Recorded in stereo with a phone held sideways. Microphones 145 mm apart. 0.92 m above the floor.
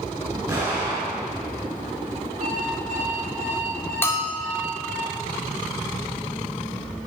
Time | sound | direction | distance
0.5 | an explosion | 20° right (ahead or behind) | 5.5 m
2.4 | an alarm clock | 75° right (ahead or behind) | 4.5 m
4.0 | a bell | 15° left (ahead or behind) | 1.8 m